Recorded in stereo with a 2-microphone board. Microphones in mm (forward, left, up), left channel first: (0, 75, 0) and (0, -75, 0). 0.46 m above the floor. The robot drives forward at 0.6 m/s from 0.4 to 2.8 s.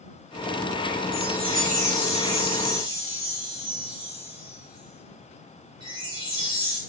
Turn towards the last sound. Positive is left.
turn(degrees=-30)  # may be behind; listen again after turning